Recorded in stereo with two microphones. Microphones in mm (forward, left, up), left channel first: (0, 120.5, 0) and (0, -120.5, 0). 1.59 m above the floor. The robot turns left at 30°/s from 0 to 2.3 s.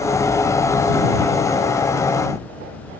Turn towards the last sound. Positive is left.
No sound to turn to.